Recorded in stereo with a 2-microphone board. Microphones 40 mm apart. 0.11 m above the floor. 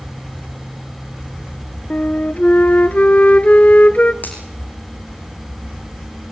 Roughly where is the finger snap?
Left.